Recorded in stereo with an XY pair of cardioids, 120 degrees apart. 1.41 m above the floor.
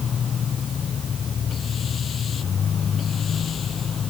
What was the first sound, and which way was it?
A machine running, 40° left.